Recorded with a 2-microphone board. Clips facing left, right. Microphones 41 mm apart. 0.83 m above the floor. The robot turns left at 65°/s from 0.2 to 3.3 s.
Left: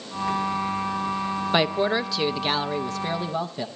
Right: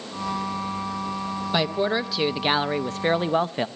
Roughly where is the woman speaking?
Ahead left.